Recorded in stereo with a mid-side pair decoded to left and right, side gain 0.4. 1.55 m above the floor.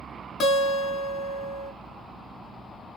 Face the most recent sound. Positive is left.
turn(degrees=65)